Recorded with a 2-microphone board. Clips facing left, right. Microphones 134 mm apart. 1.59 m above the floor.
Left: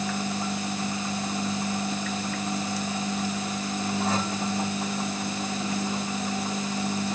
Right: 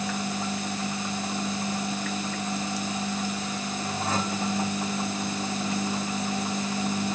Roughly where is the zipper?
I don't hear a zipper.